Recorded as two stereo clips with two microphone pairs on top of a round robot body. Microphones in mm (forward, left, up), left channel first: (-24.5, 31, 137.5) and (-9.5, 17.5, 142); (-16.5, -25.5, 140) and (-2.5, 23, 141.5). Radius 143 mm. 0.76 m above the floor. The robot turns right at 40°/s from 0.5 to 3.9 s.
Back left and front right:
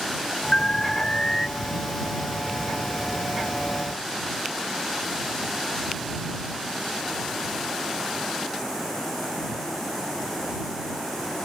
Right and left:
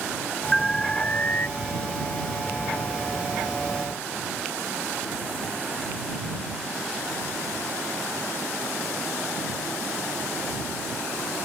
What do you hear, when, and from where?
0.5 s an alarm: 170° left; by 1.5 s 155° right